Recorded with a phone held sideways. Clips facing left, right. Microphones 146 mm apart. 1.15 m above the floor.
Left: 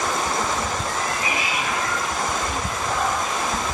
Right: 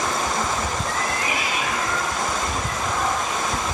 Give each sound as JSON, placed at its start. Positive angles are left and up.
{"t": 0.9, "sound": "a cat meowing", "side_deg": -85, "distance_m": 7.5}